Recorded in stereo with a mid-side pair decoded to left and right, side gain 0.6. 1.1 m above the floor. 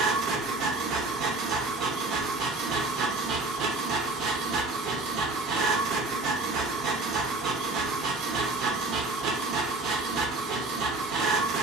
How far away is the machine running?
About 0.8 m.